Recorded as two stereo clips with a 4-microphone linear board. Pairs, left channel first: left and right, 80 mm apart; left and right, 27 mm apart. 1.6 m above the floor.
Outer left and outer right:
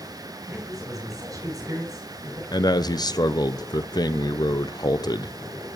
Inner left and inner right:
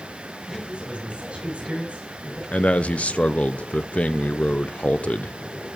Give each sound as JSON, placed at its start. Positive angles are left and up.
{"t": 0.5, "sound": "a man speaking", "side_deg": -50, "distance_m": 7.0}
{"t": 2.5, "sound": "a man speaking", "side_deg": 60, "distance_m": 0.6}